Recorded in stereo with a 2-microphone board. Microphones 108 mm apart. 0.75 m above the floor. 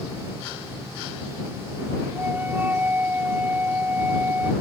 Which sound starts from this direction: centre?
A flute, at 2.1 s.